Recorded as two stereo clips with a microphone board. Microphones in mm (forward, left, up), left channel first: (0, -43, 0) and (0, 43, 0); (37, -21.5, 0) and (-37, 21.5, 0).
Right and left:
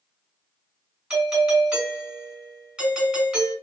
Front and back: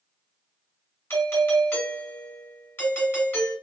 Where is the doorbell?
20° left, 1.8 m.